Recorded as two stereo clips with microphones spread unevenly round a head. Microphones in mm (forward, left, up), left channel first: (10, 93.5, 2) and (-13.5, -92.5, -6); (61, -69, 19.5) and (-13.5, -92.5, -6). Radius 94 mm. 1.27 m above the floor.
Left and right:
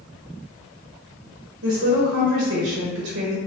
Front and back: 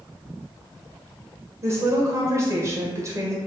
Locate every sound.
1.6 s a woman speaking: 125° right, 0.9 m